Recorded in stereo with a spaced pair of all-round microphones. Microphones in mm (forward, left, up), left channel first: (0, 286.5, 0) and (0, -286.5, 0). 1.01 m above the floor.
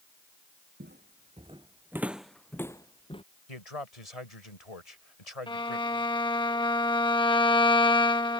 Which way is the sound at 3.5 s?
75° left (ahead or behind).